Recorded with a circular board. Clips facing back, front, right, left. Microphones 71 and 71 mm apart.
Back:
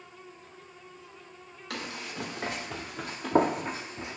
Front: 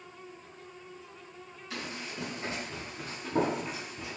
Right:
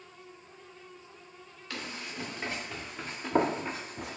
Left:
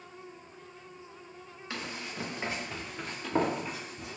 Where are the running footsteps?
160° left, 1.2 m; by 4.2 s 110° right, 0.5 m.